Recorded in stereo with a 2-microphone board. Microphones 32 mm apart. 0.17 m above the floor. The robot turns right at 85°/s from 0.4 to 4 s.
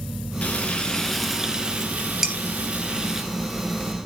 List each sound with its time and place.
0.4 s frying: 110° left, 2.5 m; by 3.2 s 10° right, 2.5 m
2.2 s dishes clattering: 10° right (ahead or behind), 2 m; by 2.4 s 20° right (ahead or behind), 2 m